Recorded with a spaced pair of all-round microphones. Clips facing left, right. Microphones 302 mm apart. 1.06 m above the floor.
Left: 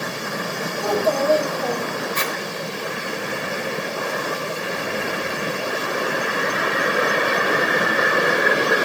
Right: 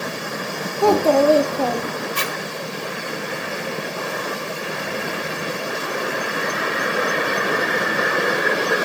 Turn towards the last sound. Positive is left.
turn(degrees=-40)  # may be behind; listen again after turning